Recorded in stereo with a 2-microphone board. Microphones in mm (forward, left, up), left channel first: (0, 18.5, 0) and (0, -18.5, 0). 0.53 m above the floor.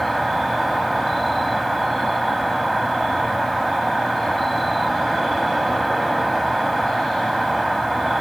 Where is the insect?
5° left (ahead or behind), 0.8 m.